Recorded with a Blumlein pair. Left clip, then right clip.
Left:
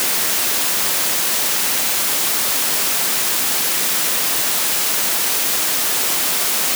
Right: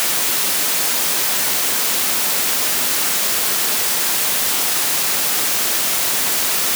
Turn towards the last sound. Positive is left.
No sound to turn to.